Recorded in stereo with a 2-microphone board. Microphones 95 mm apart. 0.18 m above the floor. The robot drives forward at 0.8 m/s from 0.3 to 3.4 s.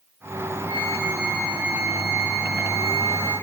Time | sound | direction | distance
0.7 | a flute | 30° right (ahead or behind) | 2 m